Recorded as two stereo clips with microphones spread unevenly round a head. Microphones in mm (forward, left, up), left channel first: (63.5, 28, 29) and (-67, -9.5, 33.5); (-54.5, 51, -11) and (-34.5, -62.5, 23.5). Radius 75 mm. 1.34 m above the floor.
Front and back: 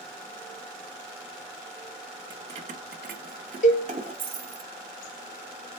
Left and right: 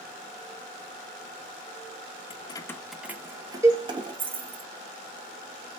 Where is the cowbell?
20° right, 0.7 m.